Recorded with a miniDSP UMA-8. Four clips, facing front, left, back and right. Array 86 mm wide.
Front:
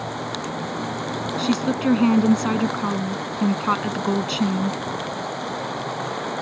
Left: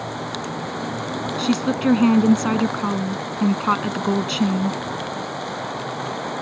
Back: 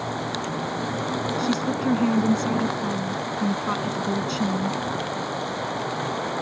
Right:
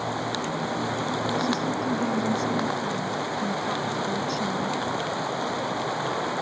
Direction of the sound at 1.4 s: 55° left.